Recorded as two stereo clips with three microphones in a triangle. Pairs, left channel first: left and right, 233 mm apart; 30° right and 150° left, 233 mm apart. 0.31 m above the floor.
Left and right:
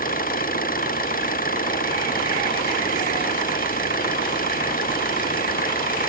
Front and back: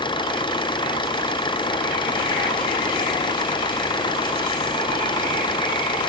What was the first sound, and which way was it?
An engine running, 40° left.